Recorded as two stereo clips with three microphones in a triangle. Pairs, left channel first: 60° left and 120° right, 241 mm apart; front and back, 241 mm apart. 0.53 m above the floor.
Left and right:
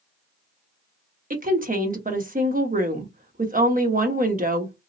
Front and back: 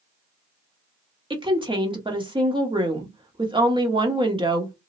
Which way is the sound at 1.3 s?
125° right.